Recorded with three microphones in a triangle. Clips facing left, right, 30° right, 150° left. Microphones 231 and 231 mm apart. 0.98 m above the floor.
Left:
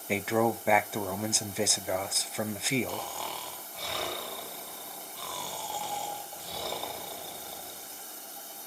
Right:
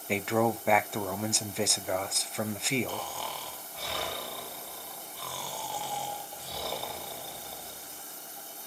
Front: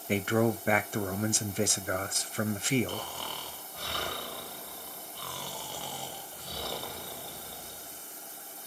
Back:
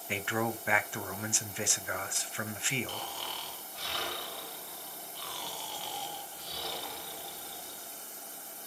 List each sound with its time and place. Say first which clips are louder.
0.1 s a man speaking: even, front 7 dB; straight ahead, 0.5 m
2.9 s snoring: even, front 4 dB; straight ahead, 1.4 m